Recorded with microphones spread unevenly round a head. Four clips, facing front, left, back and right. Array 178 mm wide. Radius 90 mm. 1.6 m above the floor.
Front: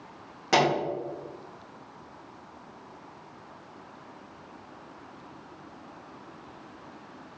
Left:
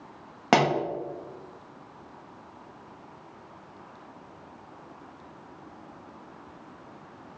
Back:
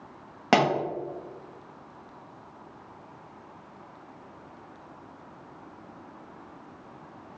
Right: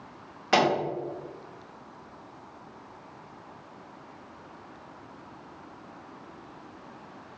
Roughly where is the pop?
Behind left.